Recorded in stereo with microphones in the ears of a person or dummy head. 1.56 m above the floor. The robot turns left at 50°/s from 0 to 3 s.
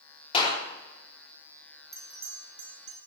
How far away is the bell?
About 8.5 m.